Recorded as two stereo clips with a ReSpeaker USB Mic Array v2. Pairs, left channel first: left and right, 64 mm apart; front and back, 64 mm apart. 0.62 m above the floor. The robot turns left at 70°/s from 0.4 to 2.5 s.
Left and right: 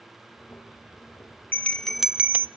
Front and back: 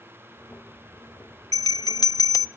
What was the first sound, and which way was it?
A bell, 30° left.